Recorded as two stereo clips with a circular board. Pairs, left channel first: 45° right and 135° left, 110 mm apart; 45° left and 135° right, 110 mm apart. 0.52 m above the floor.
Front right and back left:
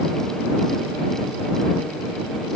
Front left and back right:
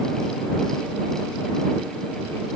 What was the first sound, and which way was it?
Only background noise.